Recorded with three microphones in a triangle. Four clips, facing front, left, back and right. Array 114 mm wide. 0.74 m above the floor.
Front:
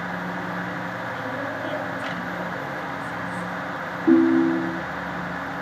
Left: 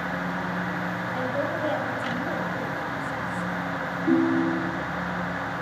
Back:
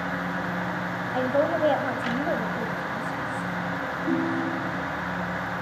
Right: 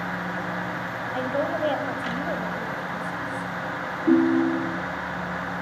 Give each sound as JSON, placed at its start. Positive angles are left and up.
{"t": 1.1, "sound": "a woman speaking", "azimuth_deg": -160, "distance_m": 4.5}
{"t": 4.1, "sound": "a ringtone", "azimuth_deg": -25, "distance_m": 0.7}